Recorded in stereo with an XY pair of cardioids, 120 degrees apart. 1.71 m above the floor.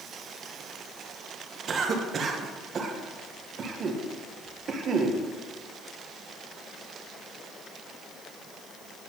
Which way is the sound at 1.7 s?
40° right.